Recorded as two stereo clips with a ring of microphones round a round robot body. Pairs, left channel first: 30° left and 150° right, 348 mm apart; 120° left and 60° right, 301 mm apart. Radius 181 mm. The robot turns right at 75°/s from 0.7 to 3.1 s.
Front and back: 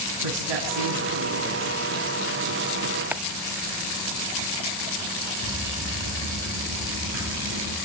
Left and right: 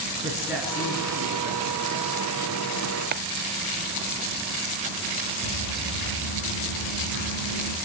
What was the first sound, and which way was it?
A man speaking, 145° right.